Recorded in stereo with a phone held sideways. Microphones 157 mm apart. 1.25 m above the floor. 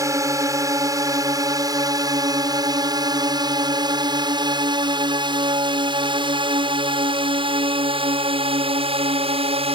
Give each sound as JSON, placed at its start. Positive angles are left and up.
{"t": 0.0, "sound": "a drone", "side_deg": -20}